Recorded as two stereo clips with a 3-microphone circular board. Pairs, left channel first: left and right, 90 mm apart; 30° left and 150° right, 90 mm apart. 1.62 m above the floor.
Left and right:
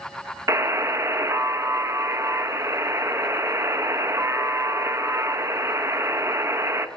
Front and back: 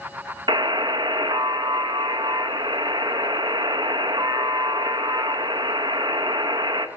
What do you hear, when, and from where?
0.5 s a buzzer: 140° right, 0.6 m